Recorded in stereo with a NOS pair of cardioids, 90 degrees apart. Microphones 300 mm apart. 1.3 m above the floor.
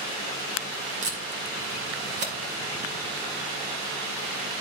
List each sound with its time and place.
1.0 s tape being pulled: 40° right, 1.7 m